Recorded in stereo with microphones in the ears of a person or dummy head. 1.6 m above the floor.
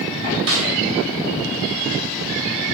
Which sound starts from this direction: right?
A snare drum, at 0.5 s.